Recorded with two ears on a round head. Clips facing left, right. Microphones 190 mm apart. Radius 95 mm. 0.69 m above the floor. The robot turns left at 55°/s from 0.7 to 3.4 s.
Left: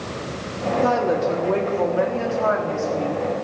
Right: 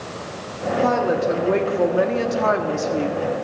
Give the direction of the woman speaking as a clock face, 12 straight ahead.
12 o'clock.